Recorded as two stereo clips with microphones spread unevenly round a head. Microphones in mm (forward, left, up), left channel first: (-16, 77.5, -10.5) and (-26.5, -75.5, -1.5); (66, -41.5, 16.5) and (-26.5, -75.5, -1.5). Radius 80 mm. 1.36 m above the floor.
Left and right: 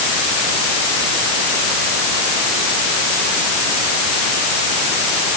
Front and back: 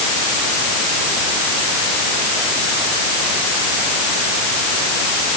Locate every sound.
Only background noise.